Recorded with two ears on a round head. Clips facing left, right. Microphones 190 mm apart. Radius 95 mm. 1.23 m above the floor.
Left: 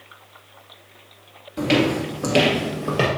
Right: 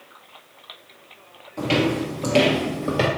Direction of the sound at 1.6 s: 25° left (ahead or behind).